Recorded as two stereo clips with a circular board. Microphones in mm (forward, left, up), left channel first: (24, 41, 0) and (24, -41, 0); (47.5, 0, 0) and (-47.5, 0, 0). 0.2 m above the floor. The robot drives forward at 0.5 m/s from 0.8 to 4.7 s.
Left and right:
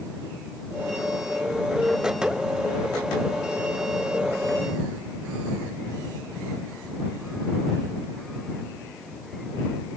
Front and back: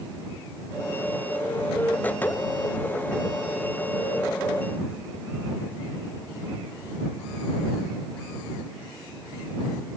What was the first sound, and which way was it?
Only background noise.